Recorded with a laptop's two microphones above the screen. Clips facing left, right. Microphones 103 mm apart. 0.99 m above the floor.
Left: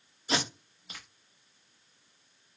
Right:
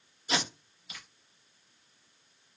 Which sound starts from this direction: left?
Tape being pulled, at 0.3 s.